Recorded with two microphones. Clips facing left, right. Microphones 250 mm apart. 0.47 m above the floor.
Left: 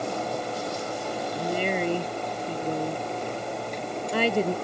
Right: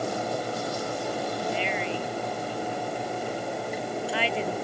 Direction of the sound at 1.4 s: 50° left (ahead or behind).